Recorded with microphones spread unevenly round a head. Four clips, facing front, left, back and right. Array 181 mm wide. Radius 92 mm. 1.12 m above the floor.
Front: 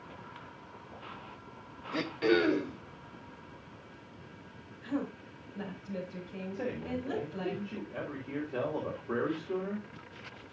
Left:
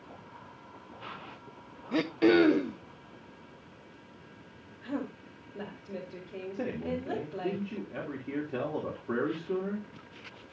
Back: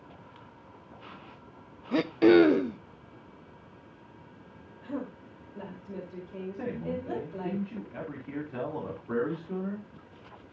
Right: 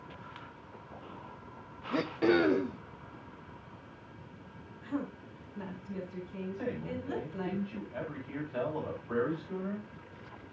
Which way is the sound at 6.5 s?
100° left.